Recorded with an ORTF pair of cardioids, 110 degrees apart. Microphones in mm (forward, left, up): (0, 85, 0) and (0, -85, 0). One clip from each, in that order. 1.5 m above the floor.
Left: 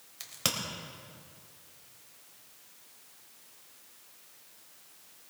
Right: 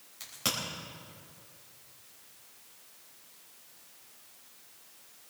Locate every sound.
0.2 s a crack: 35° left, 4 m